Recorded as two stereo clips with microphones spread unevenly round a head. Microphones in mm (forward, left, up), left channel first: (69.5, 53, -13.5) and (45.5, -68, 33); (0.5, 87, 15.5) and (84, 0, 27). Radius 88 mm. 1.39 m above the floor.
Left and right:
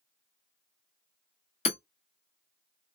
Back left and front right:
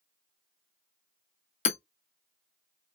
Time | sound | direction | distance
1.6 | hammering | 140° left | 0.7 m